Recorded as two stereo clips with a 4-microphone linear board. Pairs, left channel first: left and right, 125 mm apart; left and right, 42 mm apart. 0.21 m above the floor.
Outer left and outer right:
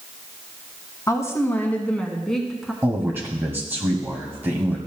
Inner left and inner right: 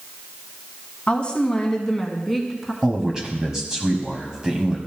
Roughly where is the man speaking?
Centre.